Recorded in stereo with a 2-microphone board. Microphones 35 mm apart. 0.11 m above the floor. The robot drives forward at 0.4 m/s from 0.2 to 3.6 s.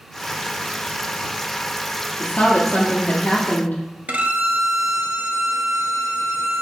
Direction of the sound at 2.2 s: 55° left (ahead or behind).